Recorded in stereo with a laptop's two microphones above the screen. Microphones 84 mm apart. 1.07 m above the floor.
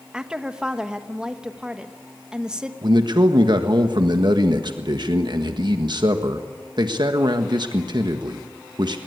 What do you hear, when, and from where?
0.1 s a woman speaking: 10° right (ahead or behind), 1.1 m
2.8 s a man speaking: 60° right (ahead or behind), 1.5 m